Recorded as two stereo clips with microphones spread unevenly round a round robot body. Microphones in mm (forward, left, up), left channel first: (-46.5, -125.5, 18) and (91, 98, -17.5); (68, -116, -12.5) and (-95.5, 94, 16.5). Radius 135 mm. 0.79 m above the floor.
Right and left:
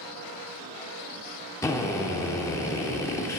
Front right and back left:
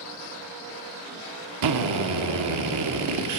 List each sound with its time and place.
1.6 s a drill: 155° left, 0.9 m